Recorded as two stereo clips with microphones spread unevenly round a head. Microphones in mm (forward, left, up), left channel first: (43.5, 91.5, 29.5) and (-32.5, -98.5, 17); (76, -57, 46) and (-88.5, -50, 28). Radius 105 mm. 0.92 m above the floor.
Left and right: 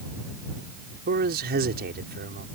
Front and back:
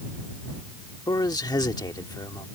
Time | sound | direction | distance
1.1 | a man speaking | 70° right | ?